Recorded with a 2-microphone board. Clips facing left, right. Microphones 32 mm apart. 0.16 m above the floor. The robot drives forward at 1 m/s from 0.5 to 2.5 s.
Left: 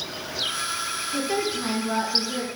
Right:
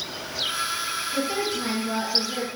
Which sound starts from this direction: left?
A woman speaking, at 1.1 s.